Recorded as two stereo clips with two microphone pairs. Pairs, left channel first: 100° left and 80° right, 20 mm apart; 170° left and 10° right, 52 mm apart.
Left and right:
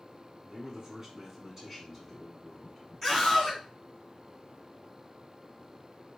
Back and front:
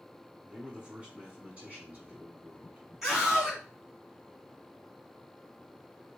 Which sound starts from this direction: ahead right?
A man speaking, at 0.5 s.